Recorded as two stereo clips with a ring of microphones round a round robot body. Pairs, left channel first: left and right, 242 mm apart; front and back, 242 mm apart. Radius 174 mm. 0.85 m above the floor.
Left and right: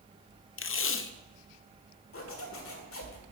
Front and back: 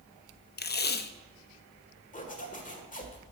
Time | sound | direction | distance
0.6 | tape being pulled | 50° left | 0.7 m
2.1 | a zipper | 60° left | 1.6 m